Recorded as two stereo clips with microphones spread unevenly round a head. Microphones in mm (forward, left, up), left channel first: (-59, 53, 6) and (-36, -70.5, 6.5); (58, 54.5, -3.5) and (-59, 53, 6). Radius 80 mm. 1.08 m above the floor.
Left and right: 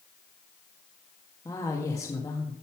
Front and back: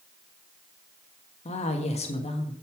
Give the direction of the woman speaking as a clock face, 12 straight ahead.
11 o'clock.